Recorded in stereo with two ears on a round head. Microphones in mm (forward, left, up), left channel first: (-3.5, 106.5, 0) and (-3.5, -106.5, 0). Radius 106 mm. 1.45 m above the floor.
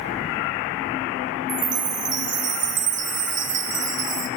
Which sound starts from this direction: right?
A chime, at 1.5 s.